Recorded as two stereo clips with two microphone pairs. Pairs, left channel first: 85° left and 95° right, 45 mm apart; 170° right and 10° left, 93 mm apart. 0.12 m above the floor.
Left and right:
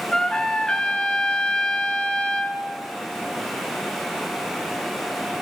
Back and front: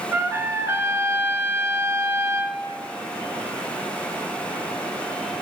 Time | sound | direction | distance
0.1 | a trumpet | 45° left | 0.6 m